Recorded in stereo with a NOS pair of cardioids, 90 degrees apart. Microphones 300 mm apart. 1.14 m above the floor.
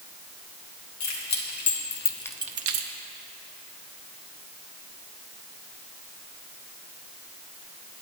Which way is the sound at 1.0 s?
65° left.